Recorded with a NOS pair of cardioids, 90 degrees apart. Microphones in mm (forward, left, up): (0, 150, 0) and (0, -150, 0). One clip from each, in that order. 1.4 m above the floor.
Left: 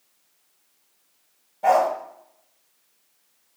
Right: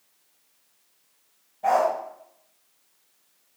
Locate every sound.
1.6 s a dog barking: 35° left, 2.5 m